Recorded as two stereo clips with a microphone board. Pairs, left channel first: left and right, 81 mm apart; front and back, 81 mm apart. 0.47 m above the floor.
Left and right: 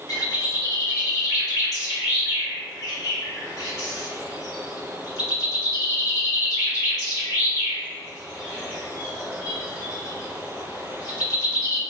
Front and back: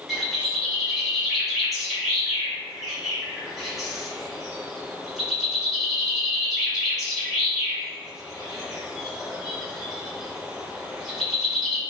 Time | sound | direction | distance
0.1 | a bird | 90° left | 1.4 m